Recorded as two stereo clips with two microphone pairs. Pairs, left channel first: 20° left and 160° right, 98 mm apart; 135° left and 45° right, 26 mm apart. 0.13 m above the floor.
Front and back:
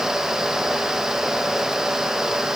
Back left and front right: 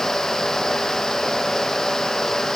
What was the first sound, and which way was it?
Only background noise.